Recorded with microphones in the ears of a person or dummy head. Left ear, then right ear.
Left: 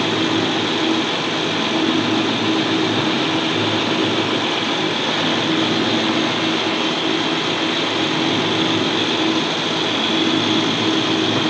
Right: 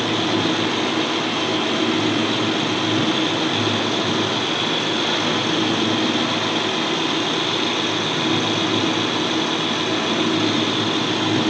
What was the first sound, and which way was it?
A fan, 20° right (ahead or behind).